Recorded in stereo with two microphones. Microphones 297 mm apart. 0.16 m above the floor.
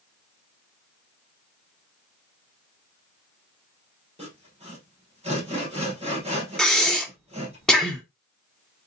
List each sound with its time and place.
4.2 s sawing: 20° right (ahead or behind), 2 m
6.6 s breathing: 5° left (ahead or behind), 0.8 m